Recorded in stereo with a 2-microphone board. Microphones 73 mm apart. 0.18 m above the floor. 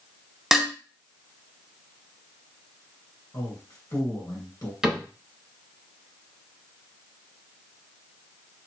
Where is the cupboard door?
10° right (ahead or behind), 1.3 m.